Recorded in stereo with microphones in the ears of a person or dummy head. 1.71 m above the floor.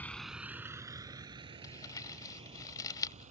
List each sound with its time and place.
0.0 s a vehicle: 10° left (ahead or behind); by 3.3 s 35° right (ahead or behind)
1.6 s crumpling: 20° left (ahead or behind)